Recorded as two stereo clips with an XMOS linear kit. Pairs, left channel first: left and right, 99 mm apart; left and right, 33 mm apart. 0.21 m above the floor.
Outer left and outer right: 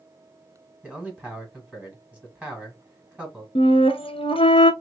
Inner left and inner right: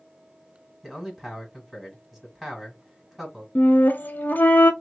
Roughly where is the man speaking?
Centre.